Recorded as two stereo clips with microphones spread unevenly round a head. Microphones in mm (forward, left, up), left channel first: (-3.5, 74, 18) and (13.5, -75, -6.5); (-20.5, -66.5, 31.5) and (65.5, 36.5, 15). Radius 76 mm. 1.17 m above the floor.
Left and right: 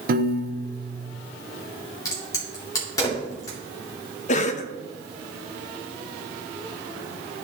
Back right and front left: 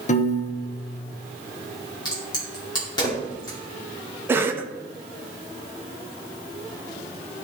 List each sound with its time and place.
0.1 s a piano: 95° right, 1.0 m
2.0 s a crack: 165° left, 2.5 m
4.3 s a cough: 100° left, 0.7 m